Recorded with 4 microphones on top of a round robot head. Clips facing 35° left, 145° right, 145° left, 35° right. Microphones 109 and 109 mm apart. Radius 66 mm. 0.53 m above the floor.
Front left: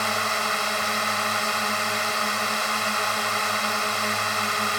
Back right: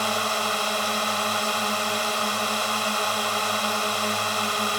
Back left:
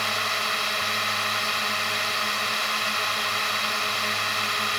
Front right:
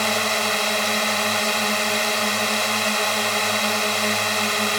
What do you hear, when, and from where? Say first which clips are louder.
0.0 s a drone: even, front right 6 dB; 70° right